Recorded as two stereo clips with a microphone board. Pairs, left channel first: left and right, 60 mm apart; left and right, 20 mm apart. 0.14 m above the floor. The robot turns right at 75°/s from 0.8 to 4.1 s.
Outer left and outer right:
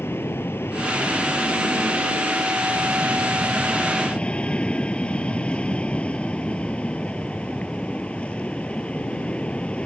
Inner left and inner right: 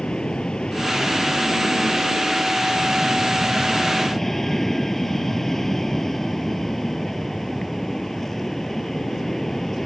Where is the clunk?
I don't hear a clunk.